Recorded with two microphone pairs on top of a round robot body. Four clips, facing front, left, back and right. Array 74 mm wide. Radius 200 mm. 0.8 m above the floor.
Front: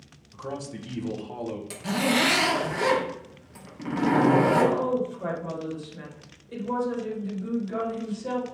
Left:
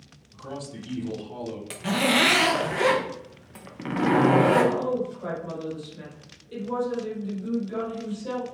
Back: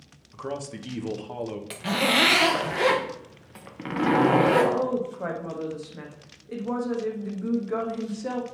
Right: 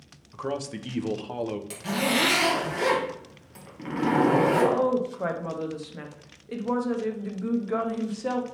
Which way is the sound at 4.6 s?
120° right.